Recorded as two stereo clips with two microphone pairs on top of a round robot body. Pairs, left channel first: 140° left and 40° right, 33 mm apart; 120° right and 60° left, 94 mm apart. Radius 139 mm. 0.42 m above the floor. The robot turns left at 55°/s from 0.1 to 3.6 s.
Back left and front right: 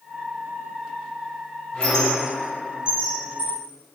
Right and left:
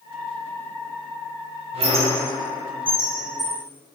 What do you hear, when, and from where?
1.7 s a squeak: 80° left, 0.7 m; by 3.6 s 20° right, 0.7 m